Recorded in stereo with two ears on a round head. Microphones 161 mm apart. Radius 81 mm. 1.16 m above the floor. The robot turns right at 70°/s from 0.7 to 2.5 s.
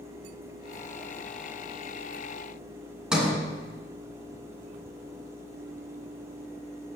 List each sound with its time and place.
3.1 s a sliding door: 5° right (ahead or behind), 2.5 m